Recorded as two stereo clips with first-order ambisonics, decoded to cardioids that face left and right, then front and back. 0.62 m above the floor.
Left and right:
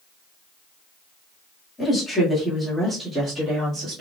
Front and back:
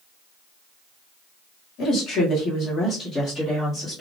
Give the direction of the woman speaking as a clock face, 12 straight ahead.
11 o'clock.